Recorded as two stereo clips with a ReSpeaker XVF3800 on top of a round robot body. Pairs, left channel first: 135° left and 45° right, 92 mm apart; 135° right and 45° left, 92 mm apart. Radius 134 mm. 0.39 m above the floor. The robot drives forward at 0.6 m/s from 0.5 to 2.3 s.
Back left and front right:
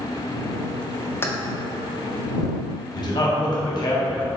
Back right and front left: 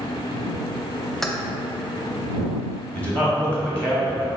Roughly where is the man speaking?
Behind left.